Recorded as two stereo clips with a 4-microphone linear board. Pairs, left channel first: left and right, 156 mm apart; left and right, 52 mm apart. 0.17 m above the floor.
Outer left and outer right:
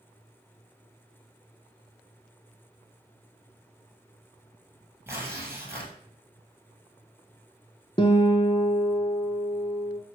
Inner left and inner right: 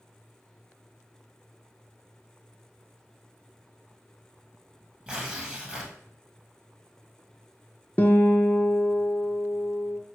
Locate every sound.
5.1 s tearing paper: 15° right (ahead or behind), 1.4 m
8.0 s a guitar: 35° left (ahead or behind), 0.6 m